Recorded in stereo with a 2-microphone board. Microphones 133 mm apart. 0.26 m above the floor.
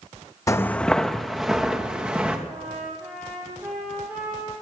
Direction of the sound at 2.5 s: 15° right (ahead or behind).